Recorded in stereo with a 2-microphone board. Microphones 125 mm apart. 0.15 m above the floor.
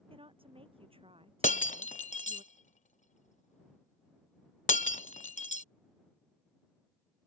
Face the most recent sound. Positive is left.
turn(degrees=85)